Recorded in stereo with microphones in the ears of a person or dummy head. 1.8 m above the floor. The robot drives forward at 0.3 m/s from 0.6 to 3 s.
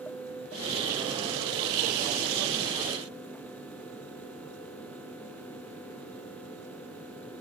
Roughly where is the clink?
No clink in this recording.